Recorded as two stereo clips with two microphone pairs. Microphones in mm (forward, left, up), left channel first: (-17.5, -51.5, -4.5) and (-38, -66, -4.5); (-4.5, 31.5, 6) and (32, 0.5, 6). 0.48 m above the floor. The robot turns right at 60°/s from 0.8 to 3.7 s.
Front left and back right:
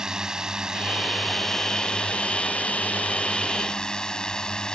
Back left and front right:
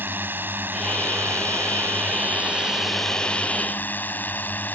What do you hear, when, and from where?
0.0 s a drone: 80° right; by 4.7 s 95° left